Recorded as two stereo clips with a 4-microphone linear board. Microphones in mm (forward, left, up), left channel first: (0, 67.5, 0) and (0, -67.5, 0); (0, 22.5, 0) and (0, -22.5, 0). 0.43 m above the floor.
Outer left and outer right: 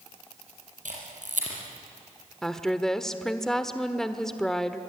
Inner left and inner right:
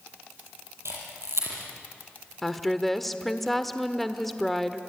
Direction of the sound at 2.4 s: 5° left (ahead or behind).